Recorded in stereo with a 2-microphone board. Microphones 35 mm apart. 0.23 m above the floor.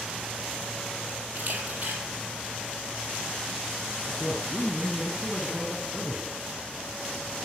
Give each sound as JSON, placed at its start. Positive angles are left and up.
{"t": 1.4, "sound": "a camera shutter", "side_deg": -45, "distance_m": 6.5}
{"t": 4.1, "sound": "a man speaking", "side_deg": -5, "distance_m": 3.5}